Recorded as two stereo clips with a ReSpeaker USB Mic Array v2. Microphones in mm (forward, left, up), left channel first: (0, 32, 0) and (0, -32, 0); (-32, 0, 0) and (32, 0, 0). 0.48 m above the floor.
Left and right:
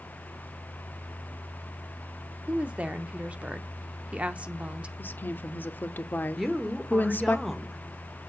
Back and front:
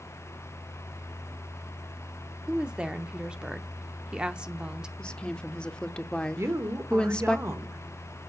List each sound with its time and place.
2.5 s a woman speaking: 50° right, 0.8 m
5.0 s a woman speaking: 115° left, 0.8 m
6.4 s a woman speaking: straight ahead, 1.3 m